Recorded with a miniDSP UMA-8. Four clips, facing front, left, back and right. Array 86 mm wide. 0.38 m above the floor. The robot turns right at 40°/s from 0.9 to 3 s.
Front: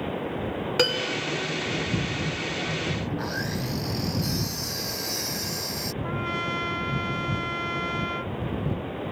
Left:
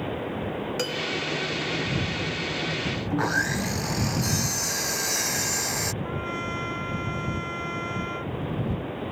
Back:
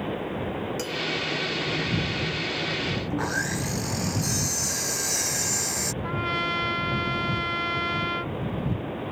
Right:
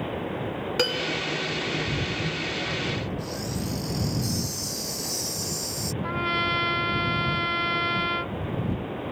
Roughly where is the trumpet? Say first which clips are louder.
Right 4 dB, back 2 dB; right.